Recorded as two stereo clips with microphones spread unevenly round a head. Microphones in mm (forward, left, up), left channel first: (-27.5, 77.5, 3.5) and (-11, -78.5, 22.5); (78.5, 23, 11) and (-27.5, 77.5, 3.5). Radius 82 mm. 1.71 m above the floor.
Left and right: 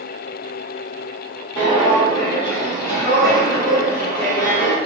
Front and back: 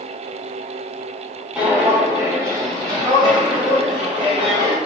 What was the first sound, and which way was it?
Footsteps, 65° left.